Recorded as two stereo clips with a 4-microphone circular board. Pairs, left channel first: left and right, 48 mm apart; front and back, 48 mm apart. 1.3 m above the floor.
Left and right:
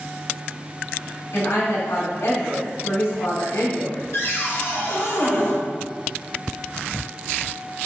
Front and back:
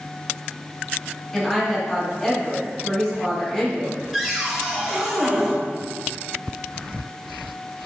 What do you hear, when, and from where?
1.3 s a woman speaking: 80° left, 2.5 m
4.1 s a cupboard door: 95° left, 1.9 m